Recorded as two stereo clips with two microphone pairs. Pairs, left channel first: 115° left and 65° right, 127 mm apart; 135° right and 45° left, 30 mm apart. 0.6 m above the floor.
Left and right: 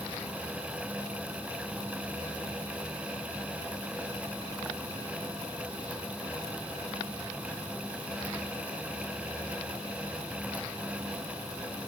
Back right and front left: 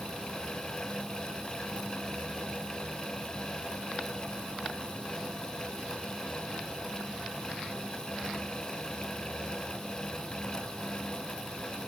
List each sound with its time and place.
Only background noise.